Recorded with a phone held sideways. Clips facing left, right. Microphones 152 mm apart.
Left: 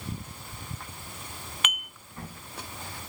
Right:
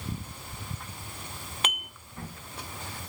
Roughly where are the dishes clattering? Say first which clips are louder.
Right 3 dB; right.